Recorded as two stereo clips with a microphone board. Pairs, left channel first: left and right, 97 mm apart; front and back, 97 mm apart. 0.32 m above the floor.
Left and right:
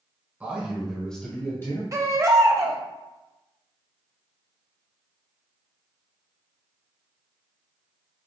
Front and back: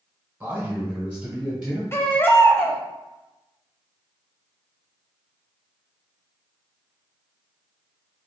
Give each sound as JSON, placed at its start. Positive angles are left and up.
{"t": 0.4, "sound": "a man speaking", "azimuth_deg": -140, "distance_m": 1.5}
{"t": 1.9, "sound": "a baby crying", "azimuth_deg": -50, "distance_m": 0.7}